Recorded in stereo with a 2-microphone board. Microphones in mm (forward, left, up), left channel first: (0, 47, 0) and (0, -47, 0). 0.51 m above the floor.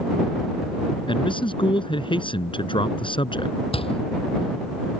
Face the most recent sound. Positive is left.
turn(degrees=85)